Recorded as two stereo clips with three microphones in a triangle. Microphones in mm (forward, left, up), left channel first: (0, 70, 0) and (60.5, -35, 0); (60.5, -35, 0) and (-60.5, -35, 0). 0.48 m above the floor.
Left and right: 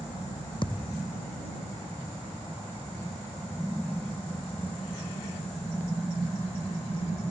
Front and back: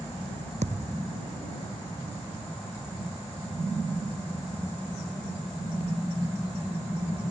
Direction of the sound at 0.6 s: 165° left.